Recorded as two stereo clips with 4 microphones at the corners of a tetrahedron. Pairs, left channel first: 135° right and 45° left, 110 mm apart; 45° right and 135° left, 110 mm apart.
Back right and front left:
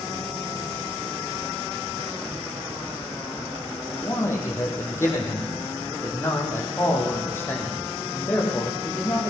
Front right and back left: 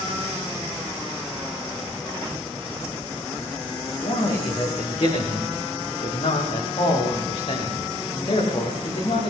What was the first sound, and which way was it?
A man speaking, 70° right.